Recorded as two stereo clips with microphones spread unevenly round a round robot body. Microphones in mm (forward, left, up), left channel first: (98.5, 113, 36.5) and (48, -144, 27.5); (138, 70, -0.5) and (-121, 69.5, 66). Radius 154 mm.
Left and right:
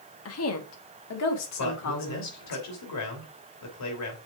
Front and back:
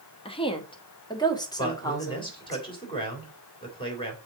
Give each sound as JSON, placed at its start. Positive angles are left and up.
{"t": 0.2, "sound": "a woman speaking", "azimuth_deg": 55, "distance_m": 1.3}
{"t": 1.6, "sound": "a man speaking", "azimuth_deg": 70, "distance_m": 3.0}